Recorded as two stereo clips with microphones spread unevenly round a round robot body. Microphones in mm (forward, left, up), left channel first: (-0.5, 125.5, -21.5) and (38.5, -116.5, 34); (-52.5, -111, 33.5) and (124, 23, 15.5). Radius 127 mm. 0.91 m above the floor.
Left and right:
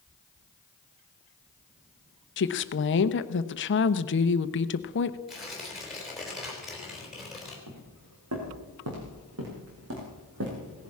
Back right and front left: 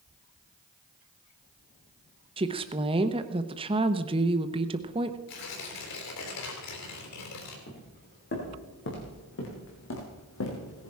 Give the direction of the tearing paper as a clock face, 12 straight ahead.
6 o'clock.